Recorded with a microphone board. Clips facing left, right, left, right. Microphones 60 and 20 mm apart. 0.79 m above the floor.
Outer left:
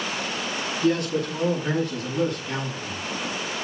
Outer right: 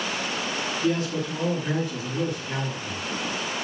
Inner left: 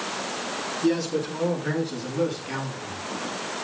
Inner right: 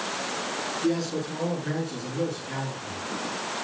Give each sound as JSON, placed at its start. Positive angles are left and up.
{"t": 0.8, "sound": "a man speaking", "side_deg": 65, "distance_m": 9.0}